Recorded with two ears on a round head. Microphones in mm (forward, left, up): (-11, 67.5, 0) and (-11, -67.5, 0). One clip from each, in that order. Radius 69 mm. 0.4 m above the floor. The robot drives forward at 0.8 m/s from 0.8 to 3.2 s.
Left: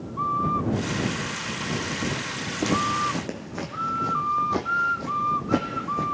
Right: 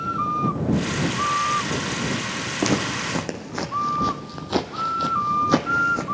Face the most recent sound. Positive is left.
turn(degrees=-45)  # may be behind; listen again after turning